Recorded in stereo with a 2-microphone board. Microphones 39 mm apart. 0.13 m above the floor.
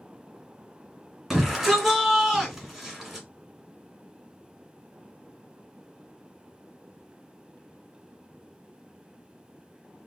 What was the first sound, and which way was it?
A shout, 5° right (ahead or behind).